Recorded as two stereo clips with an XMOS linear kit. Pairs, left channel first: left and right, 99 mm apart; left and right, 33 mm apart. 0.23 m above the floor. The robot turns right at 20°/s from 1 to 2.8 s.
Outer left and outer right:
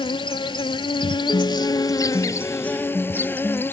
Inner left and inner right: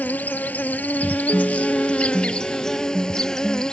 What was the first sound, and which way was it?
An insect, 120° left.